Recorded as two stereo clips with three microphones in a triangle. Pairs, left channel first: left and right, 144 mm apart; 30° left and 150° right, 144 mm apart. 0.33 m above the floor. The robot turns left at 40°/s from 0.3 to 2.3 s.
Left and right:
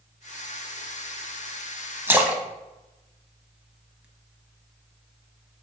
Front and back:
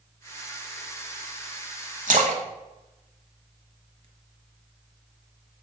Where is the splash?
160° right, 1.1 m; by 4.0 s 170° right, 1.1 m.